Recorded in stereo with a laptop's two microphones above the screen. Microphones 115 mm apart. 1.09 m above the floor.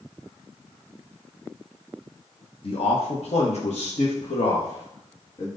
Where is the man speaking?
50° left (ahead or behind), 1.1 m; by 5.5 s 60° left (ahead or behind), 2 m.